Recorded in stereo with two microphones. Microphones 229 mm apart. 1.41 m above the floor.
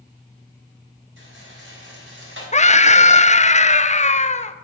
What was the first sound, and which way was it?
A rattle, 60° right (ahead or behind).